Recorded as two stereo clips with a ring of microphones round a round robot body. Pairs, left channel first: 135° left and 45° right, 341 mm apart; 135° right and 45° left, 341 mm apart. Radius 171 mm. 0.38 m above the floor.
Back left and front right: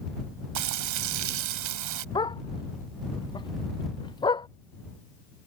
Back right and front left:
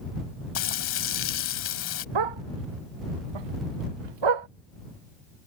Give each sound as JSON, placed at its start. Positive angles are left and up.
{"t": 0.6, "sound": "frying", "azimuth_deg": -80}
{"t": 2.1, "sound": "a dog barking", "azimuth_deg": 55}